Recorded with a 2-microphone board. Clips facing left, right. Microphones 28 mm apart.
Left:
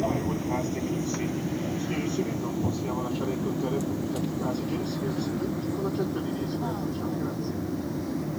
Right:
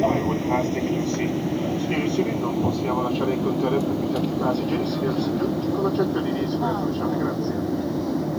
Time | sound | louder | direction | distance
0.0 | an aircraft | right 6 dB | 25° right (ahead or behind) | ?